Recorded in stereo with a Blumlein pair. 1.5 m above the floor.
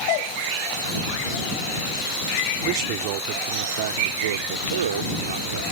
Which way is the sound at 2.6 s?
40° right.